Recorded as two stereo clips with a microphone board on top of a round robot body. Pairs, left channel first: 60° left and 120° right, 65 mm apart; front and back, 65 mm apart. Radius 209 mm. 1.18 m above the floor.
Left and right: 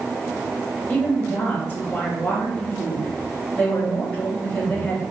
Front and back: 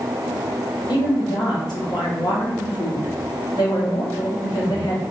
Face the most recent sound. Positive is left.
turn(degrees=-5)